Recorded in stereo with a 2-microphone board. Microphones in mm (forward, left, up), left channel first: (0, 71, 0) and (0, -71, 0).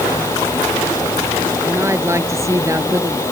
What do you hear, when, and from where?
1.6 s a woman speaking: 20° right (ahead or behind); by 3.2 s 25° right (ahead or behind)